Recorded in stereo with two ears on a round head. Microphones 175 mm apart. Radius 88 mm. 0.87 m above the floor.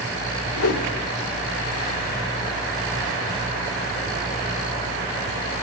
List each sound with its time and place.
0.5 s a whoosh: 85° left, 1.7 m